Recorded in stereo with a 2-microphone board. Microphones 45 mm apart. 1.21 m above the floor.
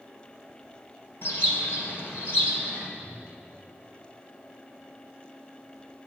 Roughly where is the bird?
Left.